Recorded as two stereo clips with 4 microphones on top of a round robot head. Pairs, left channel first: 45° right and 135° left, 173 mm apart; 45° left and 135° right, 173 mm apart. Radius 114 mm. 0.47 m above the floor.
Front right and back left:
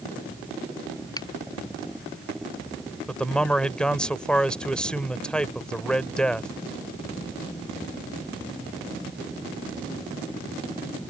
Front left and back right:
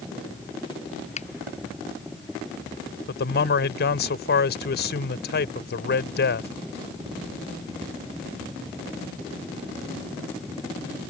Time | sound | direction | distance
1.2 | a finger snap | 15° left | ?
3.1 | a man speaking | 40° left | ?